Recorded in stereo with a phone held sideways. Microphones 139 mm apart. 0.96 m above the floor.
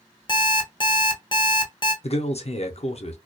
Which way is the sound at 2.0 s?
50° left (ahead or behind).